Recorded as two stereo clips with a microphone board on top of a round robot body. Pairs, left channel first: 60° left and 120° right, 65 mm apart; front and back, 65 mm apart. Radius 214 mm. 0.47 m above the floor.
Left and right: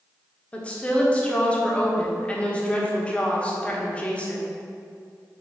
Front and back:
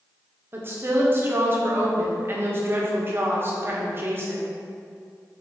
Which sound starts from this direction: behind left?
A woman speaking, at 0.5 s.